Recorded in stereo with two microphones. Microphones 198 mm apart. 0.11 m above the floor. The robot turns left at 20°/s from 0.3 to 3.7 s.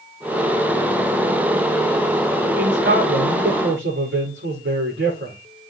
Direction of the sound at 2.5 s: 65° right (ahead or behind).